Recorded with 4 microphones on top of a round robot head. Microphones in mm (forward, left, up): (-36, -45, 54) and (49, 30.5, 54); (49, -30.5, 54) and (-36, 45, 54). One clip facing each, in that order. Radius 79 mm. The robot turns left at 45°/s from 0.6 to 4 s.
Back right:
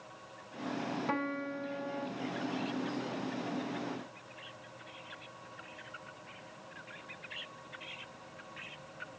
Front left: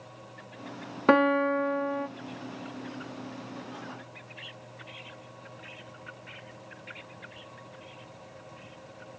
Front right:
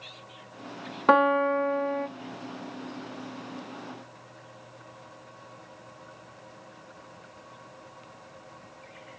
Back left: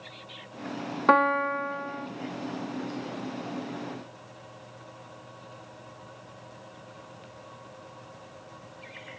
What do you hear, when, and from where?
1.1 s a piano: 45° left, 0.5 m; by 2.1 s straight ahead, 0.5 m